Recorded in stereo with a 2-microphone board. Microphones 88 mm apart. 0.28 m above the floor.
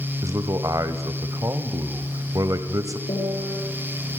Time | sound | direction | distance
0.2 | a man speaking | 40° right (ahead or behind) | 1.2 m
3.1 | a piano | 70° left (ahead or behind) | 6 m